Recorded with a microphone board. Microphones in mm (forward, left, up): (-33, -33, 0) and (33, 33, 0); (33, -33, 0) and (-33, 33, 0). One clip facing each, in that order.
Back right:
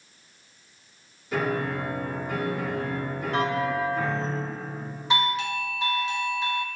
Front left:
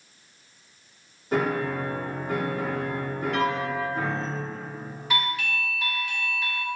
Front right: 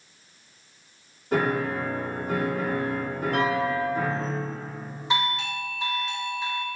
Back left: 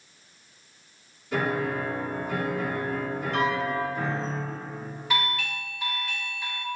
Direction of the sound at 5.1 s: 90° right.